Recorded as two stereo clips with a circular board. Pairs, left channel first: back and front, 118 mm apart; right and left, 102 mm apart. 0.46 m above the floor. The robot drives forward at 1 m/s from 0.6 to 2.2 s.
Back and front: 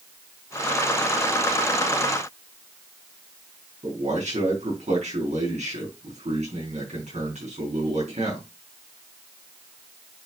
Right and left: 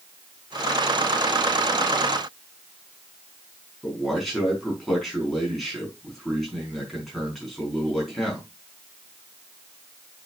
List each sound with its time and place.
3.8 s a man speaking: straight ahead, 5 m